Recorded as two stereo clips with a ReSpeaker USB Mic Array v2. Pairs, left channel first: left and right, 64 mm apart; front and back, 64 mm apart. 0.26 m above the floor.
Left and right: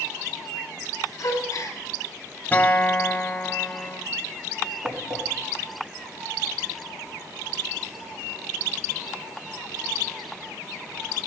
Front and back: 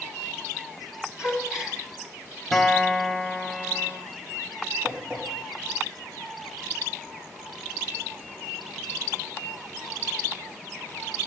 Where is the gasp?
100° left, 1.5 m.